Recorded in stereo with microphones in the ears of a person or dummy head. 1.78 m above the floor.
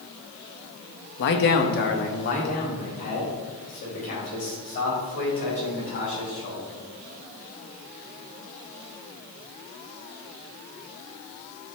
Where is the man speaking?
55° left (ahead or behind), 1.0 m; by 6.8 s 45° left (ahead or behind), 7 m.